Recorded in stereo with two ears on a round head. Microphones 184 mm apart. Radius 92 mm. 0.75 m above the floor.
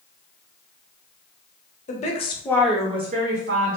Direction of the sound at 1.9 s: 40° left (ahead or behind).